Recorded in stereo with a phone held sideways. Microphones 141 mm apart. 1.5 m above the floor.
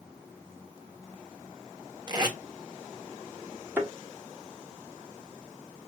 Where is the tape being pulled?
30° right (ahead or behind), 1.2 m.